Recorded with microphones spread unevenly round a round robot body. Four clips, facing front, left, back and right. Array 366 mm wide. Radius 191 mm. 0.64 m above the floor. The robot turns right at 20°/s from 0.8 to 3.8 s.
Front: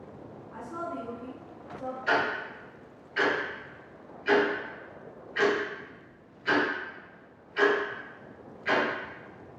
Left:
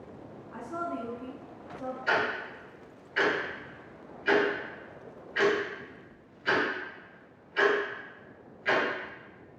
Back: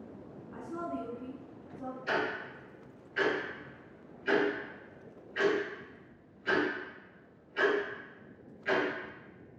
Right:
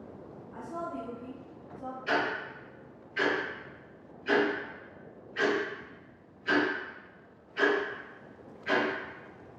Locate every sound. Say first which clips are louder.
0.5 s a woman speaking: left 2 dB, front 2 dB; 80° left, 1.3 m; by 2.0 s 105° left, 1.3 m
2.1 s ticking: left 1 dB, front 6 dB; 40° left, 1.8 m; by 8.8 s 75° left, 1.8 m